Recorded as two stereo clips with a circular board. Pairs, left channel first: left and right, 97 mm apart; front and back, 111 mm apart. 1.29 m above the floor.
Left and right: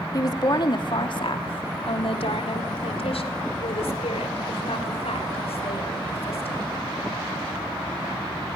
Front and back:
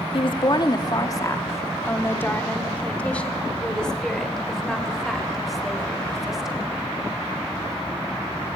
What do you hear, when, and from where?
0.1 s a woman speaking: 40° left, 2 m; by 6.7 s 95° left, 7 m